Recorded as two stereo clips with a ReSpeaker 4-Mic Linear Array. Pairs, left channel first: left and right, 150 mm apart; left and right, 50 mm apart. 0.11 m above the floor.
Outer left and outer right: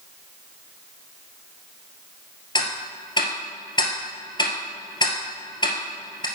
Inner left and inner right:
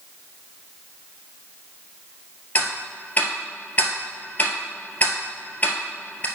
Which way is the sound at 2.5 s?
30° left (ahead or behind).